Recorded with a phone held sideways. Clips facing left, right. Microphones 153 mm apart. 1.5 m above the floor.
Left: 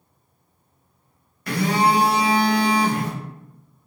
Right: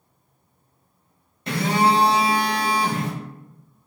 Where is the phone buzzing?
25° right (ahead or behind), 0.7 m.